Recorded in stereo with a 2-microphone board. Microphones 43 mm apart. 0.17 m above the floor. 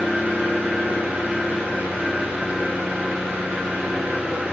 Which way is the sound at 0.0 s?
45° right (ahead or behind).